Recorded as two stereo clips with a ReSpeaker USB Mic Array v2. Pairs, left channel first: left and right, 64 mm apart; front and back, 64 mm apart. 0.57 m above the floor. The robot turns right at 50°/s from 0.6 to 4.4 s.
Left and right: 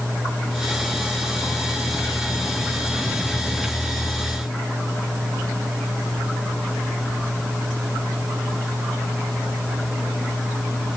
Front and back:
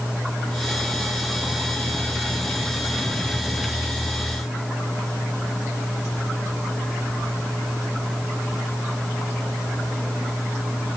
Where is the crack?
No crack in this recording.